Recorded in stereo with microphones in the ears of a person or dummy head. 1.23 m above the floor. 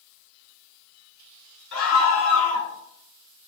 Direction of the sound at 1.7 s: 85° left.